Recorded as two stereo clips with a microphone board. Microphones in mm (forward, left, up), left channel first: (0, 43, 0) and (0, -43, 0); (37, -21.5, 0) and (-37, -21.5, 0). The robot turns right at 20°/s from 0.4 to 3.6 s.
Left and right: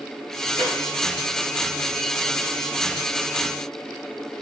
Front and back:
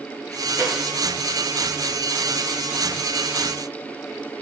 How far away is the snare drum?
About 1.2 m.